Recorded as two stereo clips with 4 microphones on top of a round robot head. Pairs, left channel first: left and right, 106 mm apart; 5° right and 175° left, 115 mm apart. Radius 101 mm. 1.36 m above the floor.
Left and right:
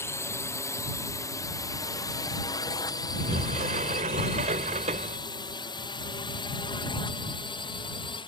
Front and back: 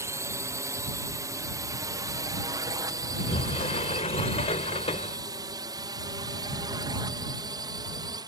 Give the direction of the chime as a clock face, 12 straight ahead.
No chime in this recording.